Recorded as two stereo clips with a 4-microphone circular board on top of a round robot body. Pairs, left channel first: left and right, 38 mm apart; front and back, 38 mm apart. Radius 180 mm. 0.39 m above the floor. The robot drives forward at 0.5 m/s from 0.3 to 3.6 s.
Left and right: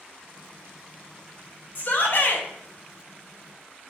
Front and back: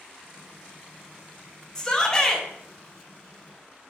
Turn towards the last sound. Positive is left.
turn(degrees=100)